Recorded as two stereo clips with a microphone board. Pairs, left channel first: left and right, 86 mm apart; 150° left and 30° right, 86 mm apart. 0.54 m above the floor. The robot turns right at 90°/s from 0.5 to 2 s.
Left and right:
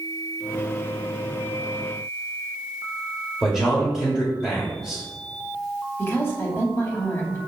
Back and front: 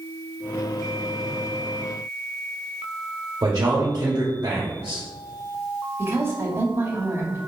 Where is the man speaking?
5° left, 1.8 m.